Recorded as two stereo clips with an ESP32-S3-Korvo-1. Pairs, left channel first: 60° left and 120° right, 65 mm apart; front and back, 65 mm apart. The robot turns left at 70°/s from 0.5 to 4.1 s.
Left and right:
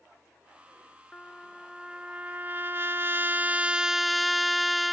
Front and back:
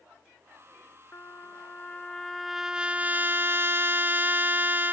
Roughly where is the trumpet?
Ahead.